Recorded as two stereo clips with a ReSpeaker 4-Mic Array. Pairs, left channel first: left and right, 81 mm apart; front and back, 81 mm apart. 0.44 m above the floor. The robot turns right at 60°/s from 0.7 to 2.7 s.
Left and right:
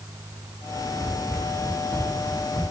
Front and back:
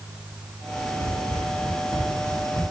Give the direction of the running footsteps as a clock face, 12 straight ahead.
12 o'clock.